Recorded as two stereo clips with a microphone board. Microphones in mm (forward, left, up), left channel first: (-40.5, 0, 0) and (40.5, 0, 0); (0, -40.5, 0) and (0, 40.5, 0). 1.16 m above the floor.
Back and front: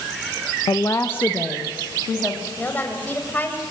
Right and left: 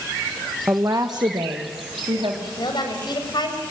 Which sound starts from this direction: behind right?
A woman speaking, at 2.6 s.